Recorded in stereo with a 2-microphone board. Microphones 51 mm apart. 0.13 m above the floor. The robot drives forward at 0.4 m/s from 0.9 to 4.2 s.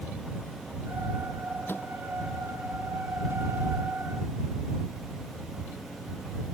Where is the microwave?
50° left (ahead or behind).